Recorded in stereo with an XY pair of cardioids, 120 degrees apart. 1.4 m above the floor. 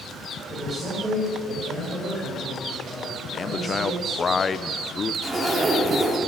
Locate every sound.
0.5 s a man speaking: 25° right, 5.5 m
3.3 s a man speaking: 30° left, 0.5 m
5.2 s a zipper: 25° right, 2.5 m